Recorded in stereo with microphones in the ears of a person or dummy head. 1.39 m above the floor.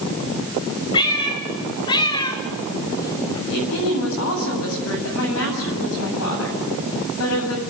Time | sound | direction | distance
0.9 | a cat meowing | 30° left (ahead or behind) | 2.5 m
3.5 | a woman speaking | 80° left | 9 m